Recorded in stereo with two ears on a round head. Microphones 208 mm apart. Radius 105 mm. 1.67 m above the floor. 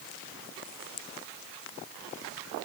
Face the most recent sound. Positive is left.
No sound to turn to.